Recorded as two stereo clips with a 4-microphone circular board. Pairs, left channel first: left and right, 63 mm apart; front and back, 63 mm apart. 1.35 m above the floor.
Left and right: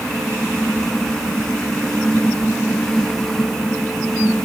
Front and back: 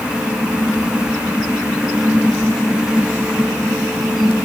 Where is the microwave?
I don't hear a microwave.